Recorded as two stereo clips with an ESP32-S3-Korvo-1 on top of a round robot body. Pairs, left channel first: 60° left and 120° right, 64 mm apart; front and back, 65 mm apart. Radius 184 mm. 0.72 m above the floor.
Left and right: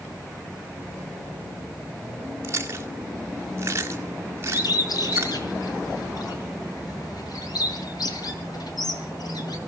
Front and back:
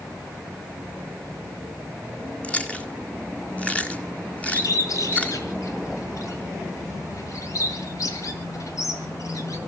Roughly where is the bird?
Ahead left.